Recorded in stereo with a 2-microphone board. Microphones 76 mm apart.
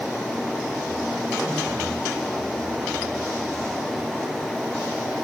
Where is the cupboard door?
I don't hear a cupboard door.